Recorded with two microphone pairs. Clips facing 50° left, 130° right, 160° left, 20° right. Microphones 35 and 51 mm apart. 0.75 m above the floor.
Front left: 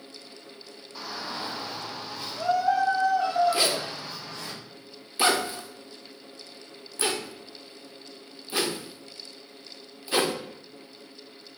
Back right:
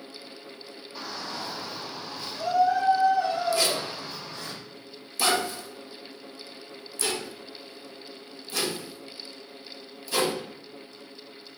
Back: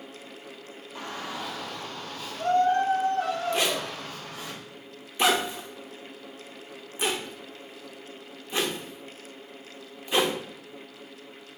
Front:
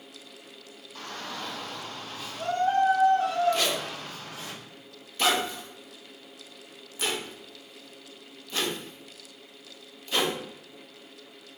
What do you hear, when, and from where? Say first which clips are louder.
0.9 s a shout: front left 1 dB, back 2 dB; 150° left, 0.5 m; by 4.5 s 55° left, 3 m
3.5 s a zipper: even, back 1 dB; 95° left, 0.6 m